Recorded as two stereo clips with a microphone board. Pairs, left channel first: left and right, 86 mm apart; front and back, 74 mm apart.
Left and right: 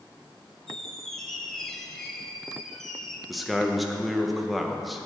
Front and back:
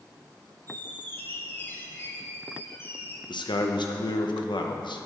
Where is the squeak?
5° left, 0.9 m.